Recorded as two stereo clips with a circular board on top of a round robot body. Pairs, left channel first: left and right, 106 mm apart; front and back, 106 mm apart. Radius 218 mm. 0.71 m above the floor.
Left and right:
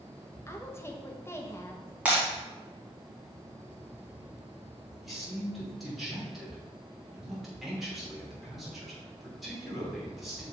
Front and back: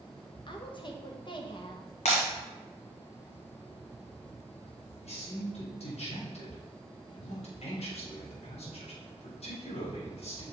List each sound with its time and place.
0.5 s a woman speaking: 25° left, 1.4 m
2.0 s breaking glass: 15° right, 1.2 m
5.0 s a man speaking: straight ahead, 3.5 m